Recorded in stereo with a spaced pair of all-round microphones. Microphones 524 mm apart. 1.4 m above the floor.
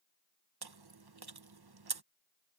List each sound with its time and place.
0.6 s chewing: 45° right (ahead or behind)